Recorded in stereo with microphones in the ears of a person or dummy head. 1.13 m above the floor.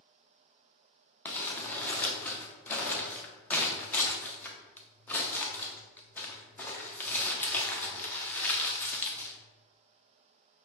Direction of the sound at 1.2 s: 10° left (ahead or behind).